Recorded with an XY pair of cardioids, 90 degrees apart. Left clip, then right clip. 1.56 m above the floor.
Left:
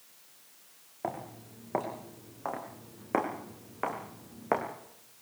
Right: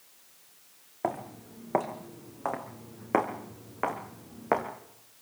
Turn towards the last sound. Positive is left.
turn(degrees=-15)